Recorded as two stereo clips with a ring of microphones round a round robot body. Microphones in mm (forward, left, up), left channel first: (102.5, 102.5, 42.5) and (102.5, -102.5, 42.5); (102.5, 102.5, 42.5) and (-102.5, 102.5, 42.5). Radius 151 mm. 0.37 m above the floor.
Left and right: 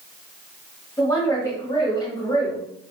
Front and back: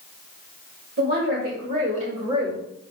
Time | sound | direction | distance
1.0 | a woman speaking | 165° left | 1.5 m